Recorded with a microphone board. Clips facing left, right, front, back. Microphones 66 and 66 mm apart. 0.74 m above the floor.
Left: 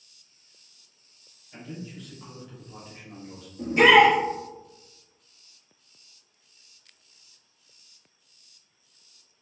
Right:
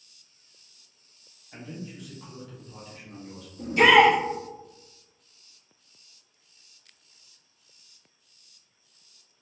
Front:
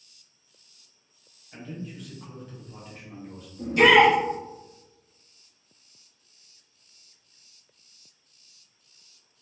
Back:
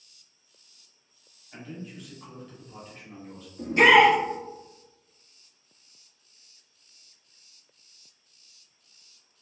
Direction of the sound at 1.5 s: 105° right.